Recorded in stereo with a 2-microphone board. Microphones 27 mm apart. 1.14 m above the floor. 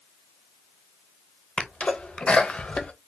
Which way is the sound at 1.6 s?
45° left (ahead or behind).